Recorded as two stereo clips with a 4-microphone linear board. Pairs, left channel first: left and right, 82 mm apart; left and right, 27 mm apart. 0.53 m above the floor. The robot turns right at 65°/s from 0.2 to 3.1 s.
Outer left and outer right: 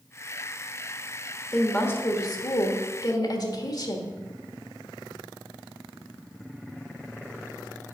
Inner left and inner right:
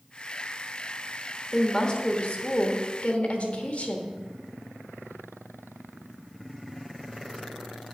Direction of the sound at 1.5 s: 10° left.